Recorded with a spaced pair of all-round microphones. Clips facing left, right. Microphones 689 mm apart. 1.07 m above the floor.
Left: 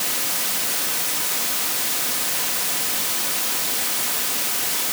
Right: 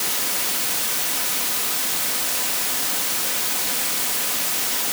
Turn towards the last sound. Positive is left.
No sound to turn to.